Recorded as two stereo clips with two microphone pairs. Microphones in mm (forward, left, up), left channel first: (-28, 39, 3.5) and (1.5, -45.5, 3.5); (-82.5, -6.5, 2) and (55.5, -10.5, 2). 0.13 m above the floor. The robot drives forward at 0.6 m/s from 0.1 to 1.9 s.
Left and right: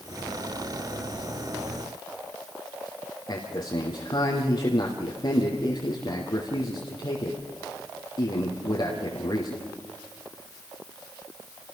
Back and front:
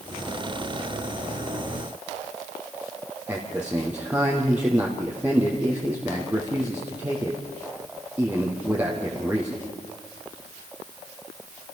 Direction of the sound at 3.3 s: 75° left.